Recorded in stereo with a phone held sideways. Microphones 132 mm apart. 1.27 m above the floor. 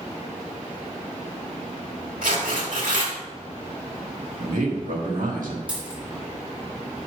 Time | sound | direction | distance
2.2 | tearing paper | 80° right | 1.9 m
4.4 | a man speaking | 85° right | 1.8 m
5.7 | a dropped coin | 10° right (ahead or behind) | 2.5 m